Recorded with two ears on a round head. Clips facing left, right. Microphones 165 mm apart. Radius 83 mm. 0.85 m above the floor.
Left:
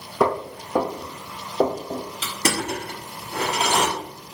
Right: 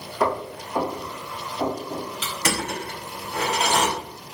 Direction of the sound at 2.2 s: 25° left (ahead or behind).